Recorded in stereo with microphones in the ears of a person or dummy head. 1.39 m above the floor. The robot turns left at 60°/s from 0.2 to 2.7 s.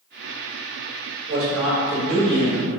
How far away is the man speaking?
About 1.0 m.